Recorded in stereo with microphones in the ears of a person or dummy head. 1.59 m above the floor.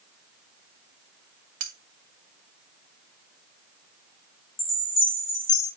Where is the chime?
25° left (ahead or behind), 2.5 m.